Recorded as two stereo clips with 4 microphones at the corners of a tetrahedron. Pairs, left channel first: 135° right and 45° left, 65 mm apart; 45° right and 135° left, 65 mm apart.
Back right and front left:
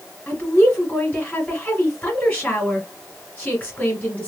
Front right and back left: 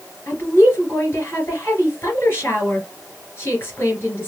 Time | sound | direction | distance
0.3 | a woman speaking | 85° right | 2 m